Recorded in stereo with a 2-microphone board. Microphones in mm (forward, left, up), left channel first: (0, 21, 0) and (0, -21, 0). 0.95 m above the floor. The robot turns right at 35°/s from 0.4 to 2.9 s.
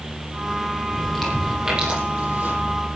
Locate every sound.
0.9 s chewing: 5° left (ahead or behind), 7 m; by 2.5 s 50° right (ahead or behind), 7 m